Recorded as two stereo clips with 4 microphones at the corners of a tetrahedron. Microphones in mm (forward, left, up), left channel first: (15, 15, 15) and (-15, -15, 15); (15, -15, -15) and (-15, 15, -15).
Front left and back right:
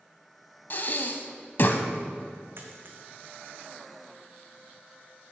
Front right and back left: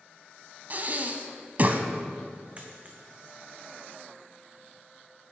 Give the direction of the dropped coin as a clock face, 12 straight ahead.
5 o'clock.